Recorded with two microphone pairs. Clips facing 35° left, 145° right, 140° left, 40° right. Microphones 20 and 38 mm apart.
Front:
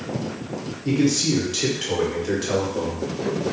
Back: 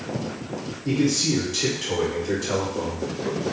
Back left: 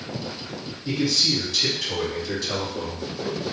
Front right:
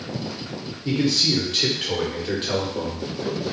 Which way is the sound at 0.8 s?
25° right.